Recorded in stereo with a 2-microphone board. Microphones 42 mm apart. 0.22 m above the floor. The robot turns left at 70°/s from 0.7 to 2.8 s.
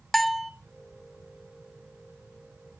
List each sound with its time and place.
0.1 s a bell: centre (ahead or behind), 0.6 m